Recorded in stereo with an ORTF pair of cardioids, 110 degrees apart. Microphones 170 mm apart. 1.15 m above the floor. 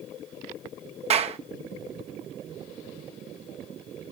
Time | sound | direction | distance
1.1 | a clap | 40° right | 1.0 m